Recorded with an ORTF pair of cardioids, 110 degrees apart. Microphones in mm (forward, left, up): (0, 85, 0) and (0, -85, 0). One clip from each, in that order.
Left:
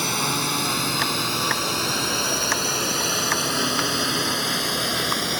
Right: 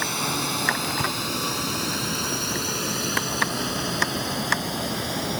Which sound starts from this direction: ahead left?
A drone, at 0.0 s.